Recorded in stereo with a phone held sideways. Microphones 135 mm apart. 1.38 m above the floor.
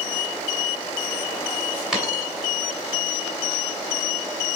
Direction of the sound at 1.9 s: 5° right (ahead or behind).